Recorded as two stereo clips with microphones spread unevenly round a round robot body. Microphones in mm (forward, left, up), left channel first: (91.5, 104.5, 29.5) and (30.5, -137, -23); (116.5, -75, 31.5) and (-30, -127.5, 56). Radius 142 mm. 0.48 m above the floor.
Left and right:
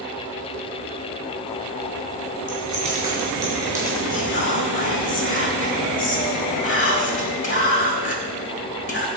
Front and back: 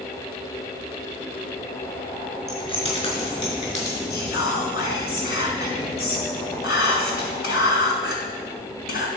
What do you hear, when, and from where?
2.5 s keys jangling: 35° right, 4 m; by 4.0 s 25° right, 5.5 m
4.1 s whispering: 35° left, 2.5 m